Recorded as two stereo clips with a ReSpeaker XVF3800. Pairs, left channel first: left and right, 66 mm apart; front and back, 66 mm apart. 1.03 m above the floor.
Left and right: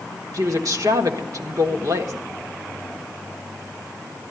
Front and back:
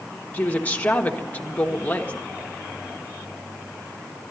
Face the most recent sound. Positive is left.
turn(degrees=-65)